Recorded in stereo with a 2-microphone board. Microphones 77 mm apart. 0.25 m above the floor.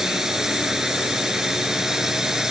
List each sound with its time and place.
0.0 s a drone: 5° right (ahead or behind)